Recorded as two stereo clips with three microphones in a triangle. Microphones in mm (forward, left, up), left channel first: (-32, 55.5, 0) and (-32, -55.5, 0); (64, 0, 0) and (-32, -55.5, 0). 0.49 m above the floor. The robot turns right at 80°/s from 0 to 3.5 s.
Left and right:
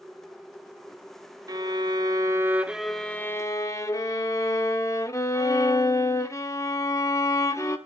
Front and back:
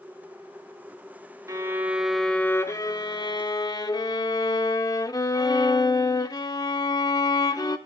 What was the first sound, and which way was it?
A violin, 110° right.